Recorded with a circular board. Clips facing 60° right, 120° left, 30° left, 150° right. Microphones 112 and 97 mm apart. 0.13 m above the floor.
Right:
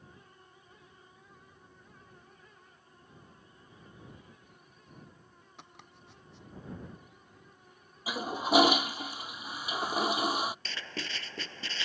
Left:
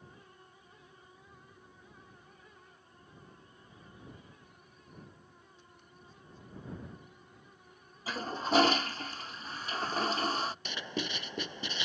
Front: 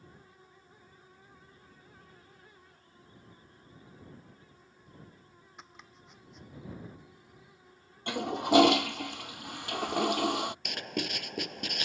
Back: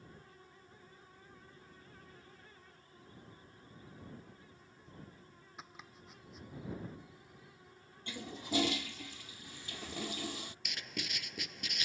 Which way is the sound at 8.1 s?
20° left.